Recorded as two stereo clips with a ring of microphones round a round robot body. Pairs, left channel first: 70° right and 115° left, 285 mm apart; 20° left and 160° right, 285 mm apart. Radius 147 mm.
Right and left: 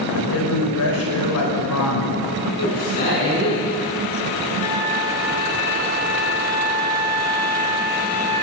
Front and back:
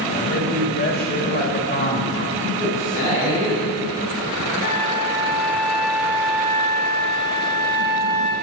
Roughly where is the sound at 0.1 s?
Ahead right.